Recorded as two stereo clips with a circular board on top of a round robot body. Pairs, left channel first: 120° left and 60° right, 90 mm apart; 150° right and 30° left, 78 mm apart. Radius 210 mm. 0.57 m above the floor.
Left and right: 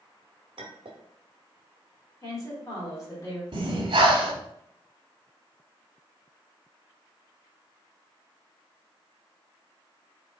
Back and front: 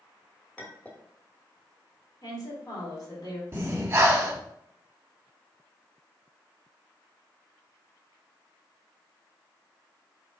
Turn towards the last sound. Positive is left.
turn(degrees=-35)